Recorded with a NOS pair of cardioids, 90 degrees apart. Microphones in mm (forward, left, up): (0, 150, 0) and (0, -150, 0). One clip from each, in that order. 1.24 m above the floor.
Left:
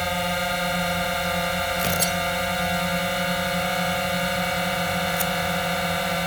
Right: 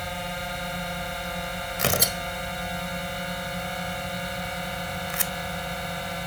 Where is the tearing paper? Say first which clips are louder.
Left 2 dB; 25° right.